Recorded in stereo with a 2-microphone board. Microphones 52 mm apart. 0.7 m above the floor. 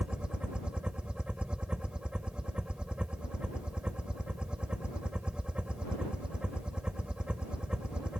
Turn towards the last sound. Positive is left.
turn(degrees=-20)  # may be behind; listen again after turning